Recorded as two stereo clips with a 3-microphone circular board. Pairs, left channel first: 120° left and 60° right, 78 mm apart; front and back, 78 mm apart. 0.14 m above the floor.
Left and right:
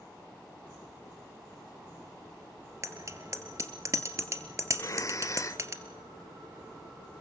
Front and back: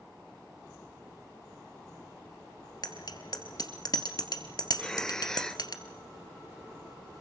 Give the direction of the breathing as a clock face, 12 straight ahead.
9 o'clock.